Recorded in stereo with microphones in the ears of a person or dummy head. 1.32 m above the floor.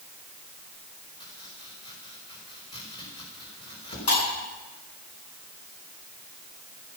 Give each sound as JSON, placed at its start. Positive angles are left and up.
{"t": 1.2, "sound": "chopping", "side_deg": 30, "distance_m": 4.5}
{"t": 4.1, "sound": "breaking glass", "side_deg": 75, "distance_m": 9.0}